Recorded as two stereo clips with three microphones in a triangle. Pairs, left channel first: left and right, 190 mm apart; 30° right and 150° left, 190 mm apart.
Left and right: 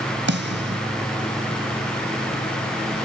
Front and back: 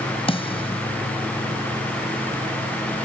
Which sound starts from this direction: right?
A snare drum, at 0.3 s.